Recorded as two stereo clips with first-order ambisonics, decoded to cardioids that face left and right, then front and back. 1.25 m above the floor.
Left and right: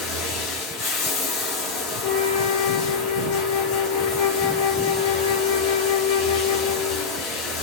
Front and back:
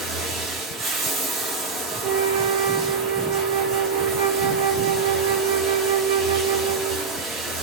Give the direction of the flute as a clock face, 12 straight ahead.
7 o'clock.